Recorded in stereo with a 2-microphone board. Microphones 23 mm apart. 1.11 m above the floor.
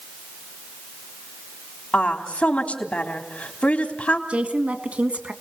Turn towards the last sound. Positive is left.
turn(degrees=-70)  # may be behind; listen again after turning